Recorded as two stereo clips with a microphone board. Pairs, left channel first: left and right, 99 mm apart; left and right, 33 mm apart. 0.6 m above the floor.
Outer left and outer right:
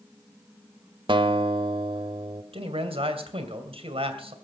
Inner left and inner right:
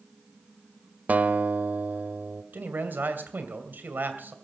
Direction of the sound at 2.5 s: 70° right (ahead or behind).